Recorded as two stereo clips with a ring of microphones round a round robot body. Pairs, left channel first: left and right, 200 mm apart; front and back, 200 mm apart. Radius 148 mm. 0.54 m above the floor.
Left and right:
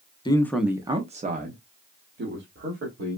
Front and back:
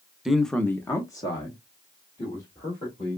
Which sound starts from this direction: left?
A man speaking, at 0.2 s.